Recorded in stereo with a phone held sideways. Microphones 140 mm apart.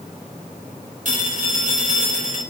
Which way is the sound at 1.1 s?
65° right (ahead or behind).